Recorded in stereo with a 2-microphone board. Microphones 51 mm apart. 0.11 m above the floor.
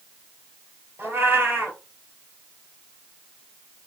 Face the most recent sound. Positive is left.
turn(degrees=-55)  # may be behind; listen again after turning